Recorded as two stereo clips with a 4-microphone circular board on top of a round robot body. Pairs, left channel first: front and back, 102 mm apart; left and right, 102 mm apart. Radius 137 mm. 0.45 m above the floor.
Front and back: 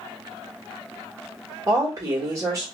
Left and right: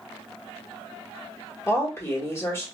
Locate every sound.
1.7 s a woman speaking: 140° left, 1.6 m